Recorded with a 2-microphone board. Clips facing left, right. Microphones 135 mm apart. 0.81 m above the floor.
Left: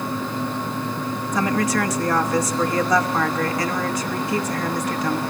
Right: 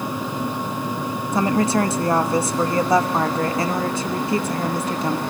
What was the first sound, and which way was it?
A woman speaking, 25° right (ahead or behind).